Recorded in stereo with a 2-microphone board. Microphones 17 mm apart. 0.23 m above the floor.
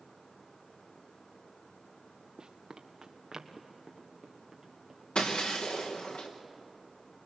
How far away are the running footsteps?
About 1.2 m.